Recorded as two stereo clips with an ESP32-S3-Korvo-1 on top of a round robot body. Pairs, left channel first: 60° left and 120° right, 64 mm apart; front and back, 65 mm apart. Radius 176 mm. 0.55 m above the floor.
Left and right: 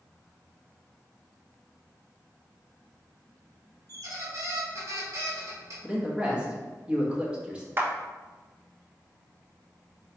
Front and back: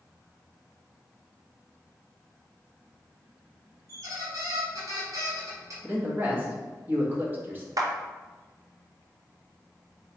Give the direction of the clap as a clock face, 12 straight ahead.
6 o'clock.